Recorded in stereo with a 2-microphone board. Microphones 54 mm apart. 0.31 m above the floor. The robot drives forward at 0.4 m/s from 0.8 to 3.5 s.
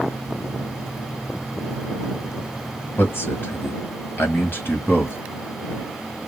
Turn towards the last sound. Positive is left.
turn(degrees=45)  # may be behind; listen again after turning